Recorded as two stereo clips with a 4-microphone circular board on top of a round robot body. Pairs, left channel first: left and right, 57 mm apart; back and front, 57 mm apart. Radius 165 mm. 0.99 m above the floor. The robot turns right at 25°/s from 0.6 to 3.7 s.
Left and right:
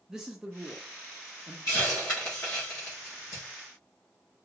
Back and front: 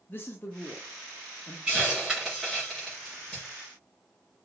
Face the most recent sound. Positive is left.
turn(degrees=120)